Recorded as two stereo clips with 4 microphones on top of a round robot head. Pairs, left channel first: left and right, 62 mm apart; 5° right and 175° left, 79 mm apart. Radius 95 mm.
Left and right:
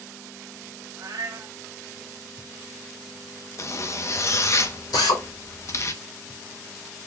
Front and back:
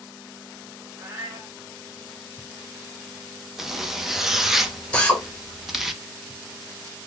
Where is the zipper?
95° left, 0.8 m.